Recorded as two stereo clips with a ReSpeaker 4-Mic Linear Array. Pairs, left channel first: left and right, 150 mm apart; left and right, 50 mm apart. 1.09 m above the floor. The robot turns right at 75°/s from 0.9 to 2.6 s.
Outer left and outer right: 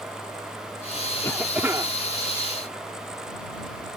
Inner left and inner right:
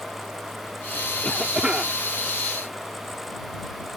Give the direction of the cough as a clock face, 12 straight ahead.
7 o'clock.